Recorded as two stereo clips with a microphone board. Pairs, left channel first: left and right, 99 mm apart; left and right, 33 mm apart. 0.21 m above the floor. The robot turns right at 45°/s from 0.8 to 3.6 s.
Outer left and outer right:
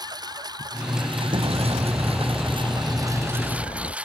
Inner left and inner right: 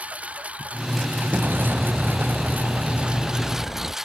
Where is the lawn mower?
45° right (ahead or behind); by 4.0 s 15° right (ahead or behind).